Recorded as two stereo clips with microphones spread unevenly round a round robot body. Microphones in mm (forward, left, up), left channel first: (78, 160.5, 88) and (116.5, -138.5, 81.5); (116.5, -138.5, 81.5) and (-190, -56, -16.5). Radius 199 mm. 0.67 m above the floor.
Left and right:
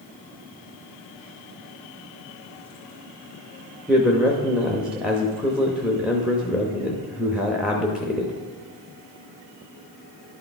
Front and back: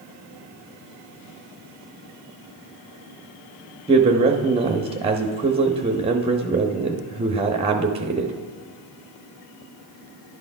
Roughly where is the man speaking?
Behind.